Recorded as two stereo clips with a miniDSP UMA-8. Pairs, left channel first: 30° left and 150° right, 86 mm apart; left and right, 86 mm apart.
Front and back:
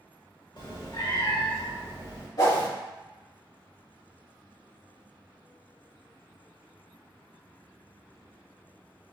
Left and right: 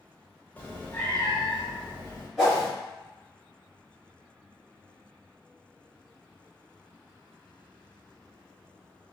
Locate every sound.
0.6 s a cat meowing: 25° left, 0.7 m; by 2.3 s 10° left, 1.7 m
2.4 s a whoosh: 5° right, 1.7 m